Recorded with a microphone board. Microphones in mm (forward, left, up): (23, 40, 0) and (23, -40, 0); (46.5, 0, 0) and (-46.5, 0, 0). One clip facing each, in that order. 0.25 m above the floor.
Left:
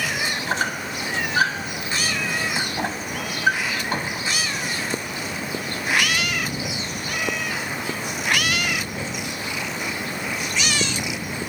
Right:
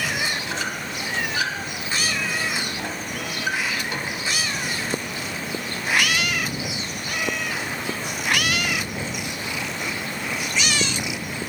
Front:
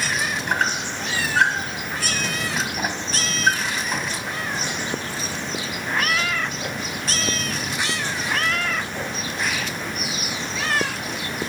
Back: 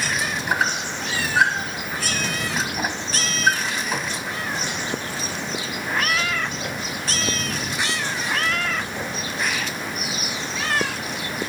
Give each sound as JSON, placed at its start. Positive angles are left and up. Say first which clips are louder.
{"t": 0.5, "sound": "a squeak", "louder": "left 4 dB, back 1 dB", "azimuth_deg": 95, "distance_m": 1.2}